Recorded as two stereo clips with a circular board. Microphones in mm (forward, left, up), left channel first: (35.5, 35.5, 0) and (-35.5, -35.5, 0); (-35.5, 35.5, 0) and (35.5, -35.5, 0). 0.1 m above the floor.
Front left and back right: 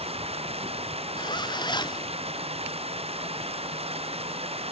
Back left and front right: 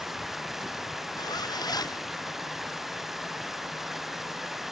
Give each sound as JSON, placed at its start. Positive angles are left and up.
{"t": 0.0, "sound": "running water", "azimuth_deg": -130}
{"t": 1.2, "sound": "a zipper", "azimuth_deg": 85}